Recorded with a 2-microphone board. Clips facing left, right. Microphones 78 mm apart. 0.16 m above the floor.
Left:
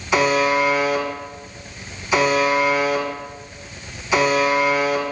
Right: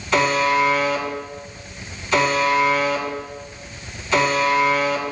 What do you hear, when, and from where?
0.1 s a buzzer: 10° left (ahead or behind), 1.8 m